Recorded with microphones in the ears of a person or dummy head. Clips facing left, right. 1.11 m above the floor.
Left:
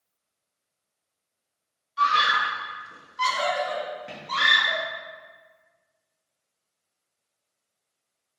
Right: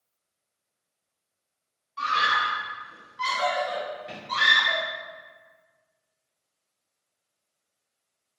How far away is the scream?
About 0.8 m.